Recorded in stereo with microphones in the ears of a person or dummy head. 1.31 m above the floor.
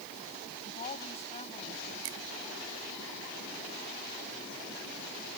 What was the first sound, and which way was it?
A woman speaking, 35° left (ahead or behind).